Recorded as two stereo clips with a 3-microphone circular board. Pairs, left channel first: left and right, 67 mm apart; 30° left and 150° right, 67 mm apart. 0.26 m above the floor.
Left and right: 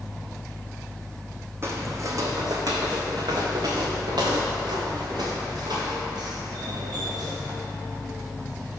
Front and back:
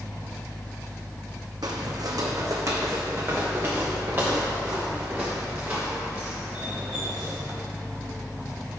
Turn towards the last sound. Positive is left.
turn(degrees=-75)